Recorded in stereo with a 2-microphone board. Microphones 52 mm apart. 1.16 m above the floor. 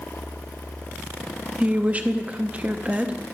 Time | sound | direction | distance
1.6 | a woman speaking | 25° right (ahead or behind) | 0.6 m